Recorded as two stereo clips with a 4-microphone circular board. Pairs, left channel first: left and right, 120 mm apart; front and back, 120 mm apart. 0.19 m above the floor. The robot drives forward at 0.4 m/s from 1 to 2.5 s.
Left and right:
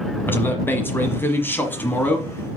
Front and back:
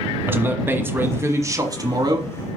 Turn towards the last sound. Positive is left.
turn(degrees=160)